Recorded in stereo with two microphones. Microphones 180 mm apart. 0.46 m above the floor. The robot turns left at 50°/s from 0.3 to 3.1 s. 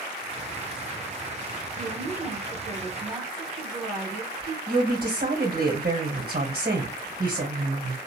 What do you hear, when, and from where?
1.8 s a woman speaking: 55° right, 1.3 m; by 4.6 s 120° right, 1.3 m
4.7 s a woman speaking: 65° right (ahead or behind), 1.7 m